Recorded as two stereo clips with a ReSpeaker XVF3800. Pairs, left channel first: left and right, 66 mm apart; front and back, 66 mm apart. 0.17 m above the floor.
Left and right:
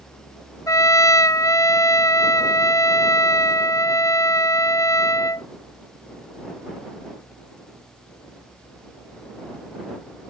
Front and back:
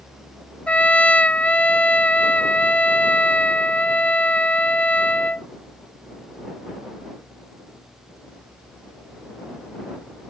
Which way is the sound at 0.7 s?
65° left.